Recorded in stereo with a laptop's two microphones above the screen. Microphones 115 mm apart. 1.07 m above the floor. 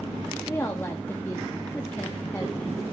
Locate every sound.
0.5 s a woman speaking: 20° left (ahead or behind), 1.6 m